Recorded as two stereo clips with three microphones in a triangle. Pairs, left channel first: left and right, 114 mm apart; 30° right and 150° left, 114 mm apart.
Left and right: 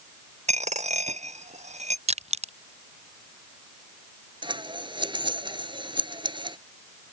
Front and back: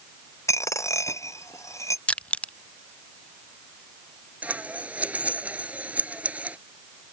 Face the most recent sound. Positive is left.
turn(degrees=-135)